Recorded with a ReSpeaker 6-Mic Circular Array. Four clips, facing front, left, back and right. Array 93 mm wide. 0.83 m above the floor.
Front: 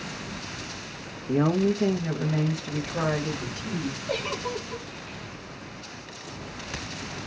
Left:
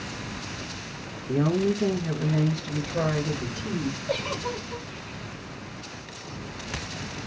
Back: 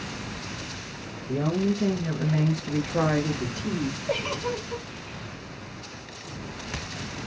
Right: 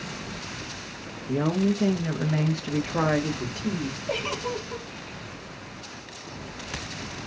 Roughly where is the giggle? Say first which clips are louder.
Right 2 dB, back 1 dB; behind right.